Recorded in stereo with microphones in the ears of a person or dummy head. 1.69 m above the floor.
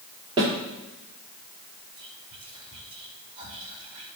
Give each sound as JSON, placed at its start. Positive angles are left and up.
{"t": 0.4, "sound": "a snare drum", "side_deg": -30, "distance_m": 2.5}
{"t": 2.0, "sound": "whispering", "side_deg": -40, "distance_m": 3.0}